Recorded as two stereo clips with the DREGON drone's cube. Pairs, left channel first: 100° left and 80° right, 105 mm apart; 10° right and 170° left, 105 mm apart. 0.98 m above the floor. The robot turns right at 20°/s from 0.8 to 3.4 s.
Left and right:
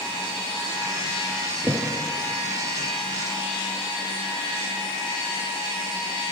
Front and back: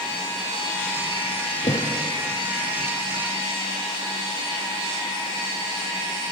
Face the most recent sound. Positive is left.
turn(degrees=15)